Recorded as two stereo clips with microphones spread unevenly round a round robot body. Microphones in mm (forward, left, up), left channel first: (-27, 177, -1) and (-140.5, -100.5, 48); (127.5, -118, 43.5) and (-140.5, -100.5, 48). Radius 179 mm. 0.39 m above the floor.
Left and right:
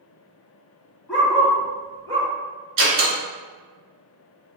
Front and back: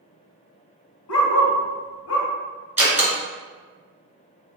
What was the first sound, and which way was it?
A dog barking, 25° right.